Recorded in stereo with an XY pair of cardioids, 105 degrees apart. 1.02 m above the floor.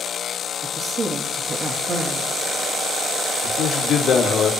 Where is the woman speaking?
50° right, 1.8 m.